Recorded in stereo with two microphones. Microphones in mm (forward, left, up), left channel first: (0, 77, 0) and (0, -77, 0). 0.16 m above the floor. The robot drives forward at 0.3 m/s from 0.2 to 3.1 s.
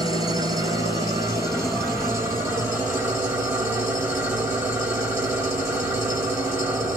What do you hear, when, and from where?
0.0 s an engine running: 30° right (ahead or behind), 1.1 m; by 7.0 s 15° right (ahead or behind), 1.9 m